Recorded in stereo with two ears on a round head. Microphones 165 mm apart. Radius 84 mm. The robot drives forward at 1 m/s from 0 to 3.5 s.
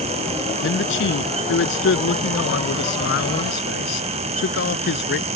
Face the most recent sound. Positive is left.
turn(degrees=65)  # may be behind; listen again after turning